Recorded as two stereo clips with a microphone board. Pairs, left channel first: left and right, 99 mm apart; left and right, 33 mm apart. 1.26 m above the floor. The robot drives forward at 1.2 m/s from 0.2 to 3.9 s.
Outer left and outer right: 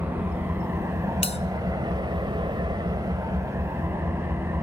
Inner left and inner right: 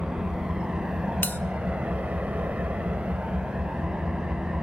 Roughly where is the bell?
Left.